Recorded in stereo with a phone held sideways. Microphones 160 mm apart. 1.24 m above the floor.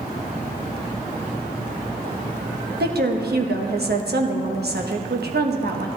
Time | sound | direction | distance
2.8 | a woman speaking | 85° right | 1.2 m